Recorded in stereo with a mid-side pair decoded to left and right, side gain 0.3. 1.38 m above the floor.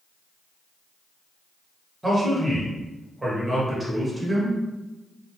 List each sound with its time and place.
2.0 s a man speaking: 30° right, 1.4 m